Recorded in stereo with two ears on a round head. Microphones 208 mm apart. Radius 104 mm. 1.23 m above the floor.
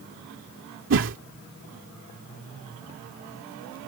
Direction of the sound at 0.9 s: 55° right (ahead or behind).